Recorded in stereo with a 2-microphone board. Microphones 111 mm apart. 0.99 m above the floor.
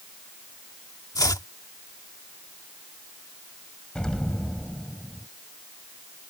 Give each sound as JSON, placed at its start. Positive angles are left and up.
{"t": 1.1, "sound": "chopping", "side_deg": 35}
{"t": 4.0, "sound": "an explosion", "side_deg": 10}